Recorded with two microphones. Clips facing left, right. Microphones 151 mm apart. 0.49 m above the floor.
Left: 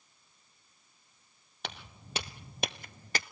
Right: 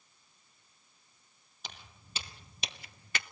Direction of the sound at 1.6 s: 70° left (ahead or behind).